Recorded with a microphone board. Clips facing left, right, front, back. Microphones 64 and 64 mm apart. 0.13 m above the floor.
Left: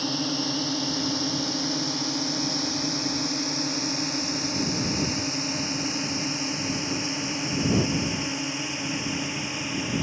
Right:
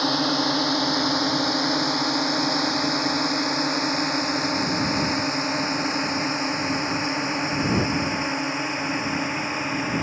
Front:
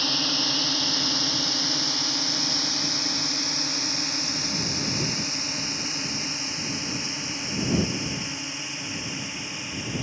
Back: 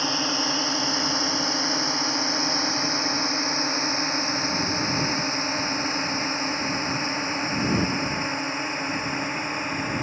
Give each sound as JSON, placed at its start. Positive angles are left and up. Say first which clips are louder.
{"t": 0.0, "sound": "a drone", "louder": "right 6 dB, back 3 dB", "azimuth_deg": -110}